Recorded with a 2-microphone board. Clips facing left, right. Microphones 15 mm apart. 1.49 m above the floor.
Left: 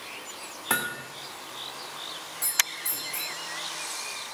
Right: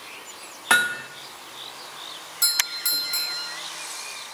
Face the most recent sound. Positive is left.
turn(degrees=-75)  # may be behind; listen again after turning